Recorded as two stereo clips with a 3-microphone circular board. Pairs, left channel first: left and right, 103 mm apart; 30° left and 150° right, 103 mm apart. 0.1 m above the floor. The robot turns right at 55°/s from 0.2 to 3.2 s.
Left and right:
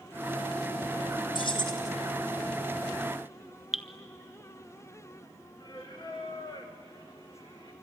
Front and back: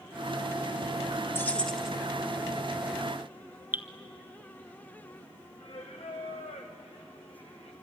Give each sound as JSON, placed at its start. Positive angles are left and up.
{"t": 1.4, "sound": "keys jangling", "azimuth_deg": 95, "distance_m": 1.4}
{"t": 3.7, "sound": "dripping", "azimuth_deg": -170, "distance_m": 0.9}
{"t": 5.6, "sound": "singing", "azimuth_deg": 45, "distance_m": 3.0}